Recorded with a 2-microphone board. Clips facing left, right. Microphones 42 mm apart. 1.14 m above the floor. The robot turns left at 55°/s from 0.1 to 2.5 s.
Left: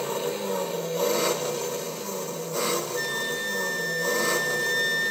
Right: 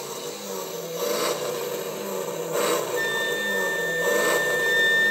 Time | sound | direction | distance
0.0 | an engine running | 45° left | 1.1 m
3.0 | a flute | 25° right (ahead or behind) | 0.7 m